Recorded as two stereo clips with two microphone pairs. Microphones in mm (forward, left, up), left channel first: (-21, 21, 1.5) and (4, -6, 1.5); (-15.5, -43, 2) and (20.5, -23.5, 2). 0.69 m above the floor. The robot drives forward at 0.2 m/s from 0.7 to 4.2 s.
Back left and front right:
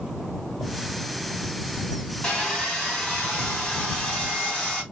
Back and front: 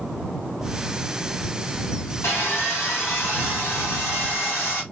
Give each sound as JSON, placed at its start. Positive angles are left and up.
{"t": 2.2, "sound": "sawing", "azimuth_deg": -160, "distance_m": 1.6}